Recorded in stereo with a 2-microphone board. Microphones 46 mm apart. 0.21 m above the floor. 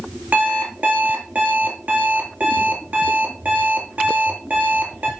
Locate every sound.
0.3 s an alarm clock: 40° right (ahead or behind), 2.5 m